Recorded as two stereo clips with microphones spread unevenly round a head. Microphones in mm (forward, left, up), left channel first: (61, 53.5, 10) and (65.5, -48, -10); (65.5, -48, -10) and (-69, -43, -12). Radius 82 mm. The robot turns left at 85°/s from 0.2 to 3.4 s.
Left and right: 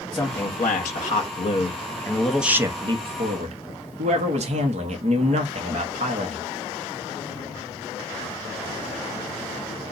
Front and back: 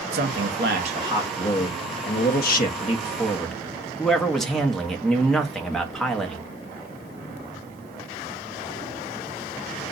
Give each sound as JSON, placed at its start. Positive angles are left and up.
{"t": 0.1, "sound": "a man speaking", "azimuth_deg": 180, "distance_m": 1.1}